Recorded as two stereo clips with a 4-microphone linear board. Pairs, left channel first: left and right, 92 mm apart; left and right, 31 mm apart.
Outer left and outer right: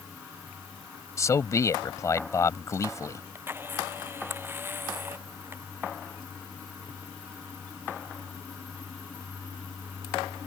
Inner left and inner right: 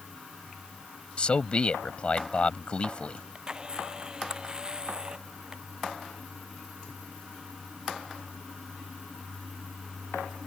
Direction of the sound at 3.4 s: 25° right (ahead or behind).